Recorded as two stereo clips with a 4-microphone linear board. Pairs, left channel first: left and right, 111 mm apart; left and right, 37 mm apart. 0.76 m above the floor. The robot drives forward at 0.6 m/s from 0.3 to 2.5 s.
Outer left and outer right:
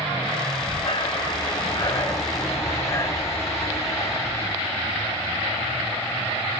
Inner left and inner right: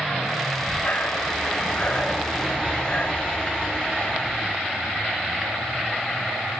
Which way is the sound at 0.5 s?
65° left (ahead or behind).